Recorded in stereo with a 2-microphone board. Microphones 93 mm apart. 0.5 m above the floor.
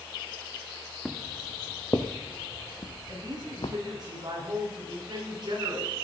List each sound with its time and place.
1.1 s footsteps: 10° left (ahead or behind), 1.6 m; by 3.8 s 75° left (ahead or behind), 1.7 m
3.1 s a woman speaking: 50° right (ahead or behind), 6.5 m